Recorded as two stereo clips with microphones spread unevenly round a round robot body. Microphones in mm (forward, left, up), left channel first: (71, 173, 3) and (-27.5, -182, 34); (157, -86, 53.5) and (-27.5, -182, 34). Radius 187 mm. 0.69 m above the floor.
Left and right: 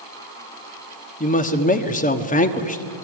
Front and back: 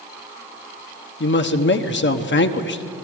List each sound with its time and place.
1.2 s a man speaking: 15° left, 1.3 m